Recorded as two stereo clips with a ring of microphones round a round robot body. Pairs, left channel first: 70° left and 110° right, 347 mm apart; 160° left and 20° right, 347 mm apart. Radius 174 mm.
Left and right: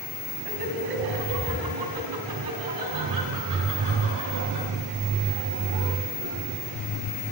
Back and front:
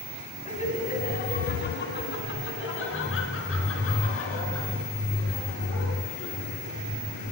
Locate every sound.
0.5 s laughter: 130° right, 2.5 m; by 6.5 s 155° right, 6.5 m